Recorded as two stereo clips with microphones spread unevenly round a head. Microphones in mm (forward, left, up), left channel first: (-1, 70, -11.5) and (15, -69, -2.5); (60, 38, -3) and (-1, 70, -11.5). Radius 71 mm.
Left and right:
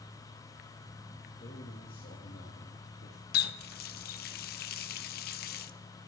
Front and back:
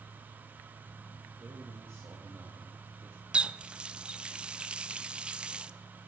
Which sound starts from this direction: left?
A running tap, at 3.3 s.